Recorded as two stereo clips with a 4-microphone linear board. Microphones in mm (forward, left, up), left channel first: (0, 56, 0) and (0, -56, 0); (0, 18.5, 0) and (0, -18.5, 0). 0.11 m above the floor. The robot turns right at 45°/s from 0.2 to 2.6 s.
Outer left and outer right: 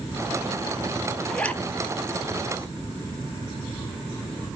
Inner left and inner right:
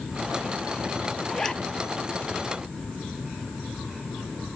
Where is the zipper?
5° left (ahead or behind), 0.5 m; by 1.6 s 20° left (ahead or behind), 0.5 m.